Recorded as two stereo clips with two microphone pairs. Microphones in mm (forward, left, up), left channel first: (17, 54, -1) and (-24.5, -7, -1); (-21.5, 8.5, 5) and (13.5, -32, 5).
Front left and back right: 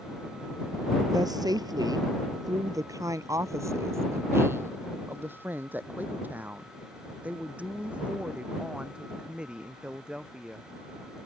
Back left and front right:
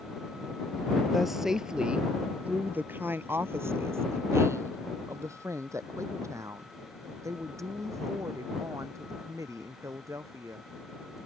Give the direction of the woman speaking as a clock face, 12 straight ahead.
5 o'clock.